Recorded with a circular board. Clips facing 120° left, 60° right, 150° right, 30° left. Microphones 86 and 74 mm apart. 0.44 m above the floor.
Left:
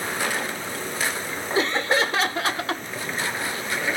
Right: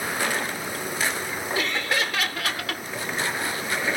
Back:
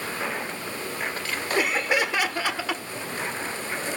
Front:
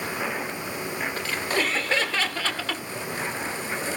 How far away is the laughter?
About 0.9 m.